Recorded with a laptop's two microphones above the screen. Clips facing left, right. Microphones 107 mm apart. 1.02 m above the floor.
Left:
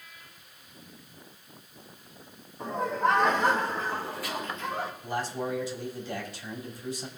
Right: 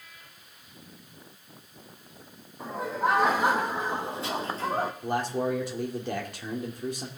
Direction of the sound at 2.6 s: Centre (ahead or behind).